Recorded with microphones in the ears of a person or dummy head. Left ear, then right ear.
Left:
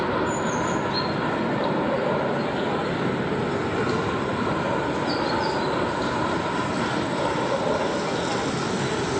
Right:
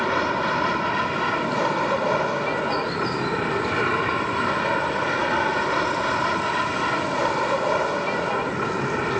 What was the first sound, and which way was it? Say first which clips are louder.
An aircraft: right 2 dB; 60° right (ahead or behind).